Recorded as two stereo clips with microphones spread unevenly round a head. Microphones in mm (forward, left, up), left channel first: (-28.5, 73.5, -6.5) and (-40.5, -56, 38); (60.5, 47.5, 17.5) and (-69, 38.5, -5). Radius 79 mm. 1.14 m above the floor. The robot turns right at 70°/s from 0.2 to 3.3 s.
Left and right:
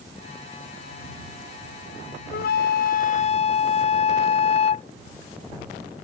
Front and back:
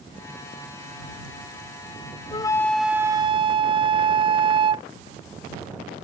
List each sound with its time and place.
2.3 s a flute: 60° left; by 4.9 s 130° left